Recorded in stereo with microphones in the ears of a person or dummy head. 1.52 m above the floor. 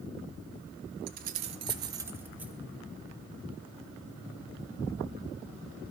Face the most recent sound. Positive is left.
turn(degrees=-5)  # may be behind; listen again after turning